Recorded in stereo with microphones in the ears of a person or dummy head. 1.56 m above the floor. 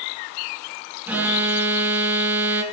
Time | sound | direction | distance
1.1 | an alarm | 10° right (ahead or behind) | 2.5 m